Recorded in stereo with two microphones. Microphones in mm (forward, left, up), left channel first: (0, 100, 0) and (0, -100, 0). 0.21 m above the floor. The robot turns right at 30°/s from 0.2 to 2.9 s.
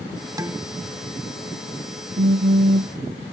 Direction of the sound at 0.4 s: 15° right (ahead or behind).